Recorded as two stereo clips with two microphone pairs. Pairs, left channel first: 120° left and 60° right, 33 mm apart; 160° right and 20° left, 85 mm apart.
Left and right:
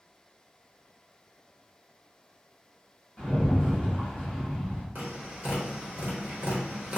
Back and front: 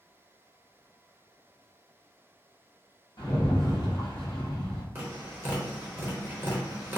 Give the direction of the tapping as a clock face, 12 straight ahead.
1 o'clock.